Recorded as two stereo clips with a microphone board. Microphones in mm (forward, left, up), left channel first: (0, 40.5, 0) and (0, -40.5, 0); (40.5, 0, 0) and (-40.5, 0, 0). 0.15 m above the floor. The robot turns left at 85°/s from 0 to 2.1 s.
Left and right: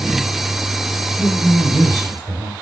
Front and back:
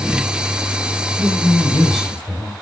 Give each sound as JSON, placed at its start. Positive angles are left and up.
{"t": 1.2, "sound": "a woman speaking", "azimuth_deg": -10, "distance_m": 2.5}